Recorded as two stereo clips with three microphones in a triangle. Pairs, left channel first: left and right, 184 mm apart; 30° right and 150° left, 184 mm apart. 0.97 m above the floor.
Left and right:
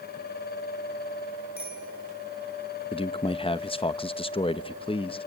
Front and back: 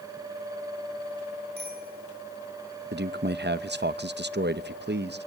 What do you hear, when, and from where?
1.6 s a bicycle bell: 120° left, 10 m
2.9 s a man speaking: 145° left, 0.7 m